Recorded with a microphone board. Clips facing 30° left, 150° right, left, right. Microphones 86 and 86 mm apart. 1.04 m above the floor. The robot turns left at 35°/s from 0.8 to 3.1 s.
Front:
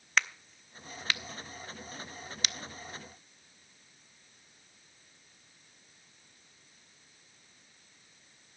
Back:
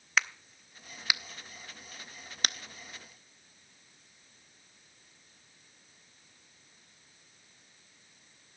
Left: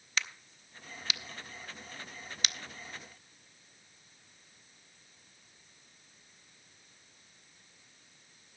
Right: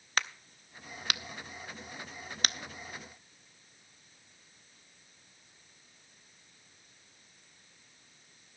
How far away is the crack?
About 0.5 m.